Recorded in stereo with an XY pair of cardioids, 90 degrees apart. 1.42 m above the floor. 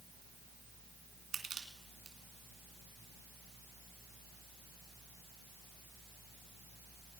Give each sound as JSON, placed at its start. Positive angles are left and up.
{"t": 1.3, "sound": "crushing", "azimuth_deg": -60, "distance_m": 2.0}